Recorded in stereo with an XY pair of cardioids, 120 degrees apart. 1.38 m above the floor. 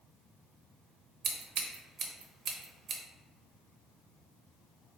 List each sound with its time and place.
1.2 s scissors: 55° right, 0.7 m